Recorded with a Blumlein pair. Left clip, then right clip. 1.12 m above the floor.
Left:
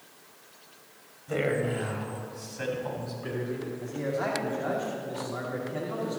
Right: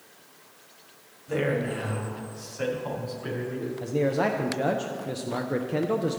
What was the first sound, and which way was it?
A man speaking, straight ahead.